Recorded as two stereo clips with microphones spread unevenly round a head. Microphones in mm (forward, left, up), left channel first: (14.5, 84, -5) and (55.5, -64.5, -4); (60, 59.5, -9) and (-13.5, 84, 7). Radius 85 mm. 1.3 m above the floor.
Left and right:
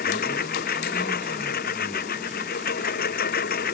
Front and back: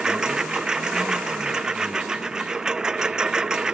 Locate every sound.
0.0 s a lawn mower: 80° left